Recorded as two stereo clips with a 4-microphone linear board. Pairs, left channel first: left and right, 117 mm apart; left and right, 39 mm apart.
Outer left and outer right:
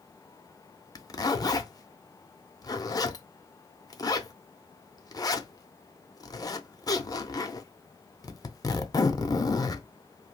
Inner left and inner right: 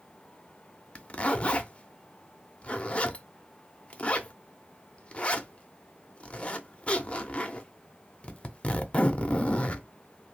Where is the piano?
No piano in this recording.